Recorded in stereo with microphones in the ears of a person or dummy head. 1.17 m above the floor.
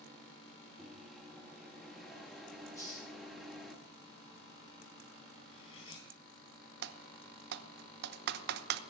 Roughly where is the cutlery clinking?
Left.